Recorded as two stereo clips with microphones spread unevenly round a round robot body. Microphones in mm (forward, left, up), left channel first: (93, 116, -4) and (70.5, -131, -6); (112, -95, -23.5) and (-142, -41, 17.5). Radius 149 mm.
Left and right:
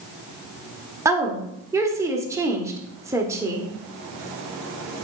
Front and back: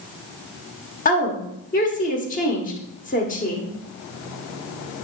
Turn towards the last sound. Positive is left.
turn(degrees=-25)